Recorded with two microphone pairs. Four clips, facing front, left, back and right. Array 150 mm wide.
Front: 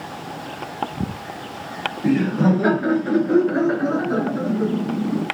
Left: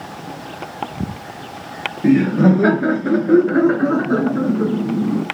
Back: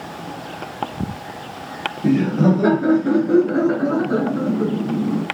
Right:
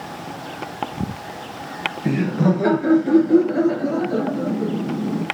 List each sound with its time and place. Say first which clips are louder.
2.0 s laughter: left 7 dB, back 2 dB; 110° left, 4.5 m; by 5.2 s 125° left, 2.5 m